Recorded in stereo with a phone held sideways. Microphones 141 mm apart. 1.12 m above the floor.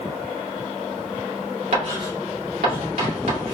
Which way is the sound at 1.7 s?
90° right.